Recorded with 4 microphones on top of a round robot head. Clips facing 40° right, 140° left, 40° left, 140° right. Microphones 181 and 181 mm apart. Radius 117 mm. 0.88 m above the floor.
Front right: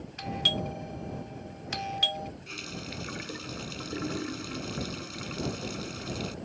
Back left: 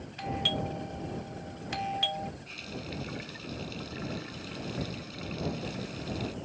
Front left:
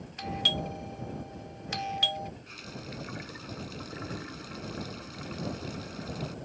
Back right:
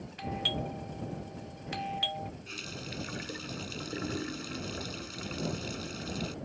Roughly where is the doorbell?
Ahead.